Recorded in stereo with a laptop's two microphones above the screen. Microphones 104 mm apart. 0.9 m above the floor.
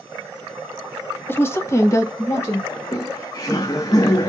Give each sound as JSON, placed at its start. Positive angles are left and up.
{"t": 1.3, "sound": "a woman speaking", "side_deg": 20, "distance_m": 0.9}
{"t": 2.7, "sound": "laughter", "side_deg": 35, "distance_m": 0.9}